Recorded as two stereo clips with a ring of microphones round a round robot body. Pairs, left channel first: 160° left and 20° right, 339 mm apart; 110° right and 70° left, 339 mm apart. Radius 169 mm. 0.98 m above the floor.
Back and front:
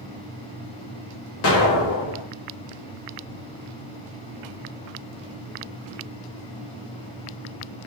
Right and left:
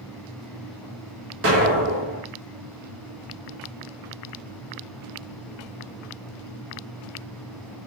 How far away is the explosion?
About 1.0 m.